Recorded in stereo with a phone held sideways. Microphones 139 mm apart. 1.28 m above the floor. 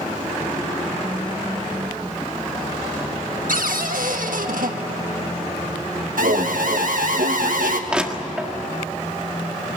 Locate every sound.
3.5 s a cupboard door: 85° right, 1.4 m
6.2 s an alarm: 80° right, 1.6 m
7.9 s crushing: 5° right (ahead or behind), 1.6 m